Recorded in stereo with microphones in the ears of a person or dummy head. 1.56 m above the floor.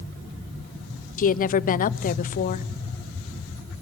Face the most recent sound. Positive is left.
turn(degrees=45)  # may be behind; listen again after turning